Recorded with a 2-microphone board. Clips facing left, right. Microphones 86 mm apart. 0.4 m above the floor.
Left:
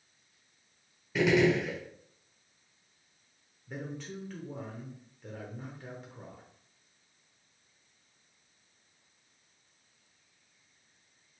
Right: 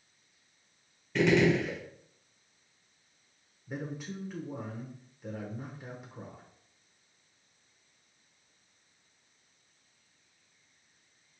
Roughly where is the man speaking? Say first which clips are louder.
Right 2 dB; centre.